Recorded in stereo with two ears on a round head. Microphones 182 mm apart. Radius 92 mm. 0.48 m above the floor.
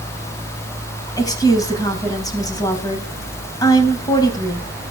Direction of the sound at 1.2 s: 20° left (ahead or behind).